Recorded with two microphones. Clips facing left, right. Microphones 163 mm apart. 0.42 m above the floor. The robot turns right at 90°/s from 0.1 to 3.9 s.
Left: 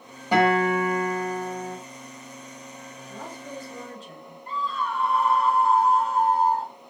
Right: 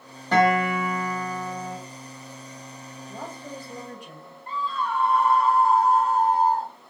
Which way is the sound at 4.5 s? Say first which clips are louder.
Right 1 dB; 35° right (ahead or behind).